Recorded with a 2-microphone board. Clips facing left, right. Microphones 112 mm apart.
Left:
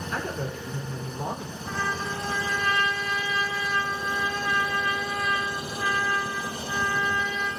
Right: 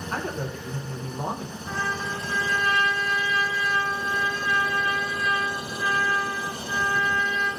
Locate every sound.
0.1 s a man speaking: 45° right (ahead or behind), 0.6 m
1.6 s a trumpet: 30° left (ahead or behind), 1.1 m